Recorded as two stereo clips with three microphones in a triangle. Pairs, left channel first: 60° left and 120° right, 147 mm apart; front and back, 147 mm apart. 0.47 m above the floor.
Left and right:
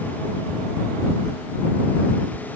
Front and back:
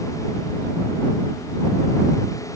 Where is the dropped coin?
No dropped coin in this recording.